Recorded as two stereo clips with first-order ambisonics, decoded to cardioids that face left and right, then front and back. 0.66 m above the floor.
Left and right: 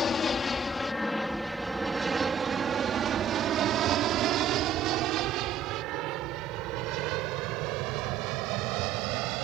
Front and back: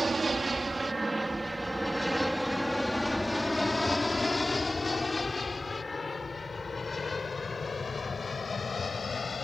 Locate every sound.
0.0 s an aircraft: 125° left; by 9.4 s 75° right